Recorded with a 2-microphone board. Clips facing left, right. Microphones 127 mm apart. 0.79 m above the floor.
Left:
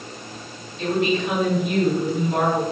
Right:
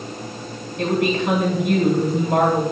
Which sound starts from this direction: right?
A woman speaking, at 0.8 s.